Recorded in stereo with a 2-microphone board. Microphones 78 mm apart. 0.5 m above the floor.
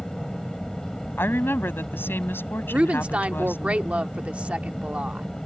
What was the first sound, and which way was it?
An aircraft, 10° left (ahead or behind).